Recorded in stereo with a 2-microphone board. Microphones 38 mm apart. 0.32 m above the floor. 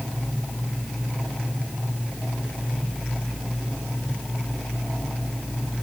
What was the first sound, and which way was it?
Only background noise.